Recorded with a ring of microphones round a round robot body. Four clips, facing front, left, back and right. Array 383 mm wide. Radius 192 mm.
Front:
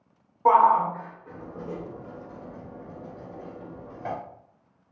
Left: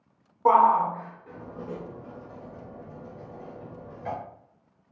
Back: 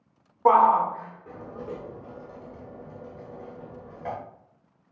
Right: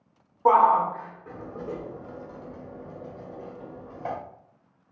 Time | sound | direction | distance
0.5 | a shout | 170° right | 0.9 m